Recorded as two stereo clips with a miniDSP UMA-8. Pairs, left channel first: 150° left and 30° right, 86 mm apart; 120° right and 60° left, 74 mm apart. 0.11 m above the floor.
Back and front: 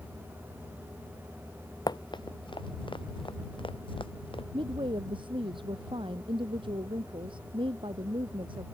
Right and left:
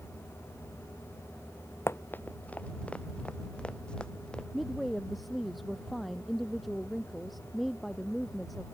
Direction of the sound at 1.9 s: 175° right.